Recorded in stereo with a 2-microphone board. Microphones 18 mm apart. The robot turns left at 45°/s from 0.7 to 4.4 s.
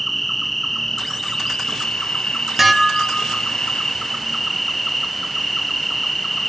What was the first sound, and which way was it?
An insect, straight behind.